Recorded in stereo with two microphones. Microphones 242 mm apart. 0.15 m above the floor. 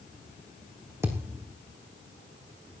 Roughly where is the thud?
Centre.